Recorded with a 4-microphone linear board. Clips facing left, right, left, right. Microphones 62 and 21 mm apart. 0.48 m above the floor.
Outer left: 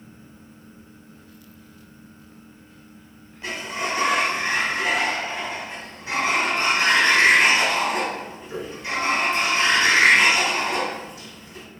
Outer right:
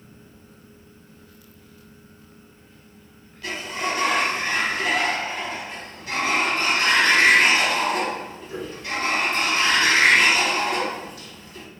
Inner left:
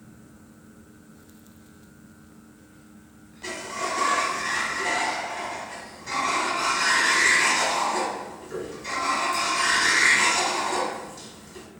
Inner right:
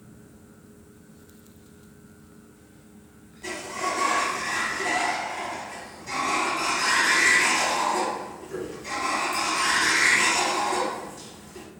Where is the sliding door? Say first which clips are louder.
Even, inner right 1 dB; 25° left (ahead or behind), 1.1 m.